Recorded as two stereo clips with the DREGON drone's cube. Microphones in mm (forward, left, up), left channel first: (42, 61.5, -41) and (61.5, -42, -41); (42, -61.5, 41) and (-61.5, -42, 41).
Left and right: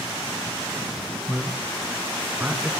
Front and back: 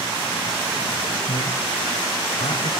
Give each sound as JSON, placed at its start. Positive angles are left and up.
{"t": 1.3, "sound": "a man speaking", "azimuth_deg": 10, "distance_m": 3.0}